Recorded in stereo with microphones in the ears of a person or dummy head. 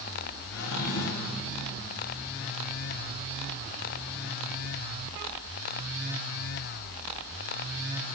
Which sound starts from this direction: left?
A drawer, at 0.5 s.